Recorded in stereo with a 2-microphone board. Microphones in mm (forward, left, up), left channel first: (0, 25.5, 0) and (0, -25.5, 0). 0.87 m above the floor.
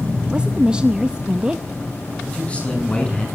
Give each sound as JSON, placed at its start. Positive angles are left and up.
{"t": 0.3, "sound": "a woman speaking", "side_deg": -15, "distance_m": 0.7}
{"t": 2.3, "sound": "a man speaking", "side_deg": 20, "distance_m": 8.0}